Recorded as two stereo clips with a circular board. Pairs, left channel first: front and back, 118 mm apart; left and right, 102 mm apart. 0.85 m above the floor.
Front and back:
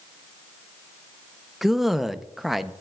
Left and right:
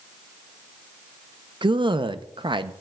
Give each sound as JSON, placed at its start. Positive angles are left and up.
{"t": 1.6, "sound": "a man speaking", "azimuth_deg": -90, "distance_m": 0.5}